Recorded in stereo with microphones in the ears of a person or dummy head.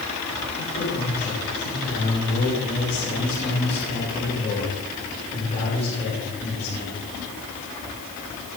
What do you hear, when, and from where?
0.5 s a man speaking: 35° left (ahead or behind), 7 m